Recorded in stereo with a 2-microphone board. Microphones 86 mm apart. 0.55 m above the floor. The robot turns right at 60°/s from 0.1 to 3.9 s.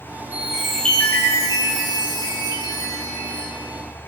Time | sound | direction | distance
0.3 | a chime | 20° right | 7 m